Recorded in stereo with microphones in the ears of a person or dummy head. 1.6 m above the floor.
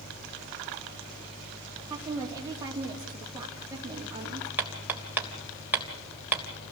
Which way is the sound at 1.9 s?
15° right (ahead or behind).